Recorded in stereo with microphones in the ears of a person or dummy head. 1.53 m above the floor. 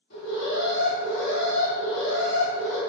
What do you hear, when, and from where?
0.1 s an alarm: 55° left (ahead or behind), 1.3 m